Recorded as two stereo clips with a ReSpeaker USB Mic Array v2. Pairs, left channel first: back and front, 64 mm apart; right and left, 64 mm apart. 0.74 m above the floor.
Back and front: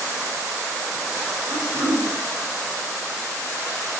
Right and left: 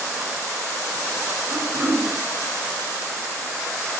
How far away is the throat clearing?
About 1.6 m.